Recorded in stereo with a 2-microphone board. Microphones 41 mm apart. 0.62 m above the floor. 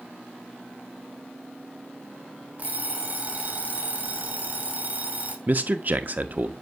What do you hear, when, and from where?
2.6 s an alarm clock: 40° right (ahead or behind), 2.5 m
5.5 s a man speaking: 40° right (ahead or behind), 0.9 m